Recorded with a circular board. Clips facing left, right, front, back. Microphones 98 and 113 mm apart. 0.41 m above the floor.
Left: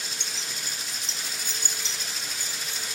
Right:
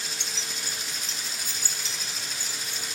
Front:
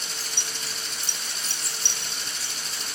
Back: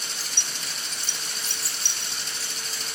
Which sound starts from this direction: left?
Keys jangling, at 0.2 s.